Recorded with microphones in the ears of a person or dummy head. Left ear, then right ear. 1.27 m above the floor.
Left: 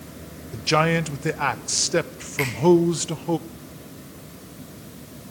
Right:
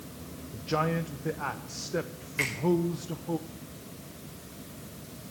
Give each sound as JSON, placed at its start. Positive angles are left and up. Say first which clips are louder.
{"t": 0.5, "sound": "a man speaking", "louder": "left 9 dB", "side_deg": 55, "distance_m": 0.6}
{"t": 2.4, "sound": "a finger snap", "louder": "left 4 dB", "side_deg": 10, "distance_m": 5.5}